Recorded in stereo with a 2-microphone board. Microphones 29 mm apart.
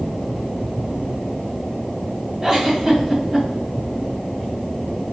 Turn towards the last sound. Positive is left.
turn(degrees=-30)  # may be behind; listen again after turning